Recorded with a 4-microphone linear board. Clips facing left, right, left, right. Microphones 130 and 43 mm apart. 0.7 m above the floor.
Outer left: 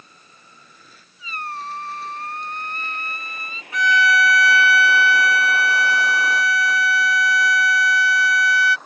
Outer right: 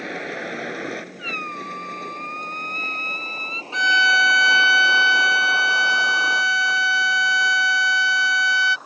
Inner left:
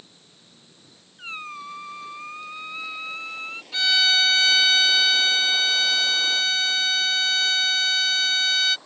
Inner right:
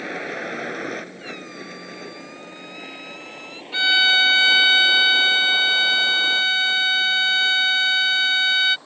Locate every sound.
0.0 s a vehicle: 85° right; by 8.9 s 5° right (ahead or behind)
1.2 s a squeak: 40° left (ahead or behind)
3.7 s a violin: 25° right (ahead or behind)